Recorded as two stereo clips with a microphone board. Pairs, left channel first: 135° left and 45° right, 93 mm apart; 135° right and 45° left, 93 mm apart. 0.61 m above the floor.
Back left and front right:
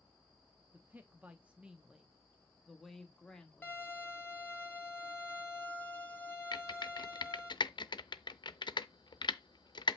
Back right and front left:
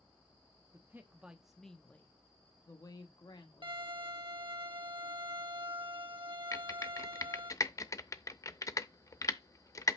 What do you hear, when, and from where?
0.7 s a man speaking: 10° left, 0.9 m; by 3.8 s 145° right, 1.5 m
3.6 s a violin: 65° left, 1.7 m
6.5 s typing on a keyboard: 170° left, 0.6 m